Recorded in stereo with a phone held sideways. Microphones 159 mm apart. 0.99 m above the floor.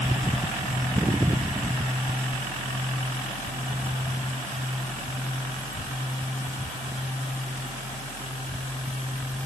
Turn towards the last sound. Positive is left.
No sound to turn to.